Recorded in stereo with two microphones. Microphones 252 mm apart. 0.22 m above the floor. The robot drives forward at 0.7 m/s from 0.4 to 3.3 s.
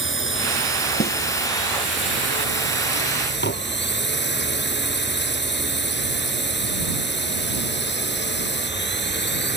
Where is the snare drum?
40° left (ahead or behind).